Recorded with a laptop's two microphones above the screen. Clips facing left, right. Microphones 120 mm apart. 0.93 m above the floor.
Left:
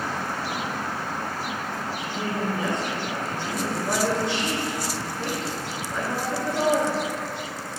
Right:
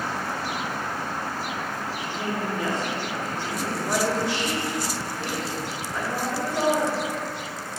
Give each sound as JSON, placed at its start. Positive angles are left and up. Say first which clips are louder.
{"t": 2.0, "sound": "a woman speaking", "louder": "left 1 dB", "side_deg": 30, "distance_m": 2.0}